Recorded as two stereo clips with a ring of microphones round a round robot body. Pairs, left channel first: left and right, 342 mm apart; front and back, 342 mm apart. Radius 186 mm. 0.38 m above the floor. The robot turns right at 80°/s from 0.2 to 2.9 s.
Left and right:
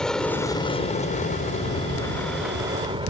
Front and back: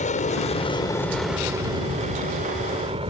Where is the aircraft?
5° left; by 3.1 s 140° right.